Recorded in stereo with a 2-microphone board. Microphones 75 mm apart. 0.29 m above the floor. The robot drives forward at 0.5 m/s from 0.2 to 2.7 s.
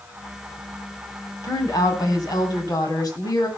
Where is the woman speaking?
55° left (ahead or behind), 2.5 m; by 3.5 s 60° left (ahead or behind), 2.5 m.